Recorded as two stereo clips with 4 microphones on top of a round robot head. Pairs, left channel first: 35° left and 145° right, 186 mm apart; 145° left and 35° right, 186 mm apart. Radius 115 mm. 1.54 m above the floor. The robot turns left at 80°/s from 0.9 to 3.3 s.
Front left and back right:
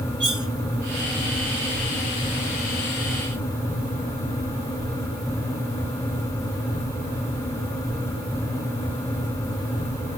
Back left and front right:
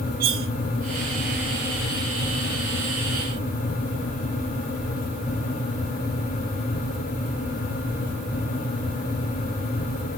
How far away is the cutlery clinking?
About 1.5 m.